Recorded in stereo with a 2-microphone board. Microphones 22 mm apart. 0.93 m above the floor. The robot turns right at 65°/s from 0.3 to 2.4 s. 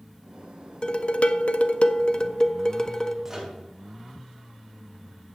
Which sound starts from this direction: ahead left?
Dishes clattering, at 0.8 s.